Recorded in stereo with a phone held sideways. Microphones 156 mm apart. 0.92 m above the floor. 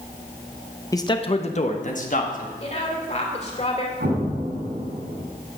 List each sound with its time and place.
0.9 s a man speaking: 20° left (ahead or behind), 0.8 m; by 2.5 s 55° left (ahead or behind), 2 m
2.6 s a woman speaking: 45° left (ahead or behind), 2.5 m
4.0 s an explosion: 80° right, 5.5 m